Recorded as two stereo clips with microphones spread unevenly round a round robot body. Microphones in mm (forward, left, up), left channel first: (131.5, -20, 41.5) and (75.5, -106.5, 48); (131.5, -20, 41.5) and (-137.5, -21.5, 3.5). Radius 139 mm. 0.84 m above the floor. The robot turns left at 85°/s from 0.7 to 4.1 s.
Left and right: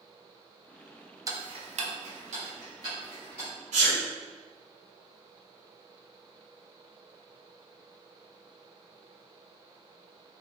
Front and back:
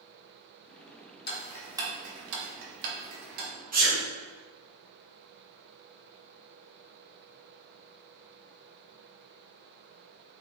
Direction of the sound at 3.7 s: 120° right.